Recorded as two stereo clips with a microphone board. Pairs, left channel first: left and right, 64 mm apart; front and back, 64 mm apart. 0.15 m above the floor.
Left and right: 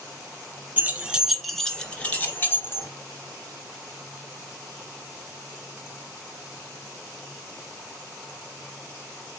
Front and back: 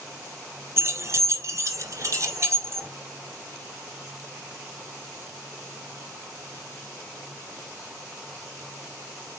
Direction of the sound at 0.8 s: 145° right.